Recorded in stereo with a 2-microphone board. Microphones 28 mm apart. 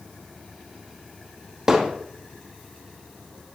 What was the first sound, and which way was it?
Hammering, 15° right (ahead or behind).